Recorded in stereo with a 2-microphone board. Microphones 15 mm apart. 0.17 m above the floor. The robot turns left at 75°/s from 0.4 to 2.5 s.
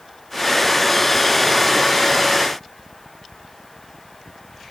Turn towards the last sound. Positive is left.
No sound to turn to.